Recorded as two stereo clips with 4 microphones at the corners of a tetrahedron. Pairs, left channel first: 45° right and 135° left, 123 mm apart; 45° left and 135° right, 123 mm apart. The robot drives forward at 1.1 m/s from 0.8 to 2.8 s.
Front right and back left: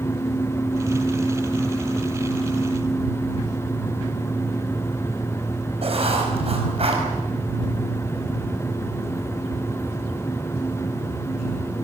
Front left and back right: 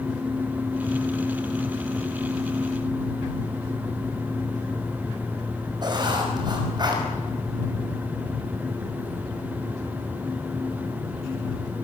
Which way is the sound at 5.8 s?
170° left.